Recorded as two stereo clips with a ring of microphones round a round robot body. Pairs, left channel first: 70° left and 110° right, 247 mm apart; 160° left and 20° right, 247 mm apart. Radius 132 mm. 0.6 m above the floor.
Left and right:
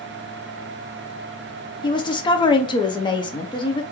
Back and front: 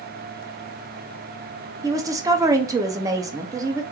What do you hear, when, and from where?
1.8 s a woman speaking: 30° left, 0.6 m